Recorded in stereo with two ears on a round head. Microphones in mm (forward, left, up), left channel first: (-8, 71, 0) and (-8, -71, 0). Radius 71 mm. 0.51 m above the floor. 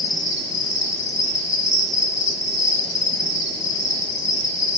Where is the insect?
20° left (ahead or behind), 1.1 m.